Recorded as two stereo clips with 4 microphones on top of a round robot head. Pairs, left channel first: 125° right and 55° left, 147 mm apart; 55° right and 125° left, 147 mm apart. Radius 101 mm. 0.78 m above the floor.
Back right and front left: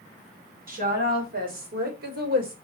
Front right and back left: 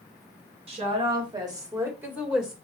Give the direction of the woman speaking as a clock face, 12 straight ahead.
9 o'clock.